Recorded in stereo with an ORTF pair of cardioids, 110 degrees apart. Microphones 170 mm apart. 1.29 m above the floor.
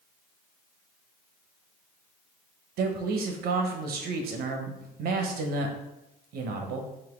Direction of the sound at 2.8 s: 65° right.